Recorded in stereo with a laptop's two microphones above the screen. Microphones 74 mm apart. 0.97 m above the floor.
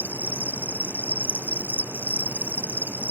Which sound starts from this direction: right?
An insect, at 0.0 s.